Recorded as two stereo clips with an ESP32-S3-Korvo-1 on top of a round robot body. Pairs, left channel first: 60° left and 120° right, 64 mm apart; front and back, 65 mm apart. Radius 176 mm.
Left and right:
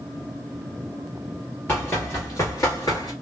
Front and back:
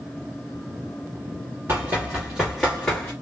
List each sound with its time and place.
1.7 s running footsteps: 120° left, 1.3 m; by 3.1 s 65° left, 1.2 m